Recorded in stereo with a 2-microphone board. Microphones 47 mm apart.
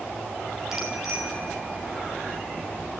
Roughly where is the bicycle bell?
Centre.